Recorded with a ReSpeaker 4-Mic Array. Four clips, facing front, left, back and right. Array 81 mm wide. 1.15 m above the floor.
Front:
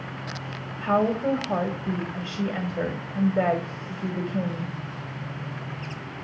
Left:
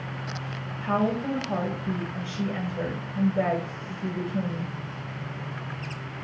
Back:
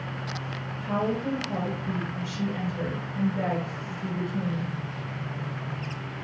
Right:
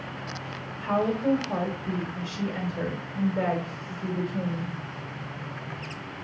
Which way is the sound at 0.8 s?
5° right.